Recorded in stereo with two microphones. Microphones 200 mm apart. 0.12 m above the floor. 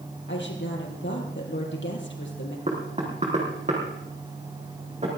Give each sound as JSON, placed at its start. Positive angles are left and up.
{"t": 0.3, "sound": "a woman speaking", "side_deg": 65, "distance_m": 3.5}
{"t": 2.7, "sound": "knocking", "side_deg": -35, "distance_m": 4.0}